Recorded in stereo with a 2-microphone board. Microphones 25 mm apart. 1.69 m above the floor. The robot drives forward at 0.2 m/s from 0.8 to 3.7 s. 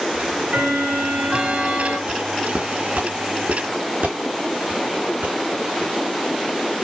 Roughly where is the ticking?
Right.